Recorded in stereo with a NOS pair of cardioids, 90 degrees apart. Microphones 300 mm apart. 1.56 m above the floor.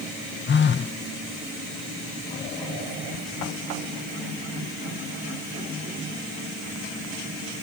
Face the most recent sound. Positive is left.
turn(degrees=35)